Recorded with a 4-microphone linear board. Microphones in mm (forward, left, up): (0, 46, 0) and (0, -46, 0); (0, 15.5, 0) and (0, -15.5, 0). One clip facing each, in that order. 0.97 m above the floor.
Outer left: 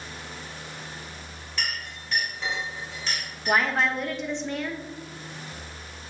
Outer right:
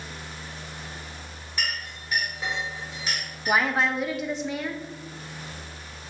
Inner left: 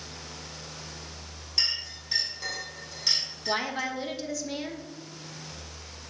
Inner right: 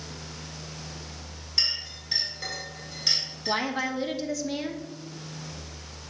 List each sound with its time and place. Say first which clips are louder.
1.6 s a clink: outer right 1 dB, inner right 1 dB; 10° right (ahead or behind), 3 m
3.5 s a woman speaking: even, inner right 2 dB; 5° right (ahead or behind), 0.9 m